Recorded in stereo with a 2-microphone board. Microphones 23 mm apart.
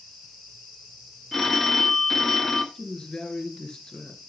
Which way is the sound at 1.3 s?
10° left (ahead or behind).